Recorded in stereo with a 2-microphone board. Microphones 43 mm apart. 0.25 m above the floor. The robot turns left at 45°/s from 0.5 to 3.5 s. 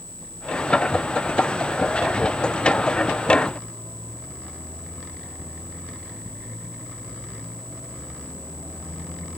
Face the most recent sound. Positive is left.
No sound to turn to.